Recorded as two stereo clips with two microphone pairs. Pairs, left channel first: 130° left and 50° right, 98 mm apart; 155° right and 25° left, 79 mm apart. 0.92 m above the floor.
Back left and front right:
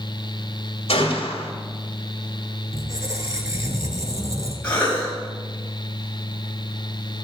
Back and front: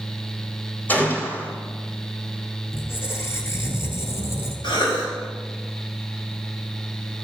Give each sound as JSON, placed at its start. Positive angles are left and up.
{"t": 0.9, "sound": "a gunshot", "azimuth_deg": 135, "distance_m": 2.5}
{"t": 2.7, "sound": "a squeak", "azimuth_deg": -105, "distance_m": 1.7}
{"t": 4.6, "sound": "a cough", "azimuth_deg": -155, "distance_m": 5.0}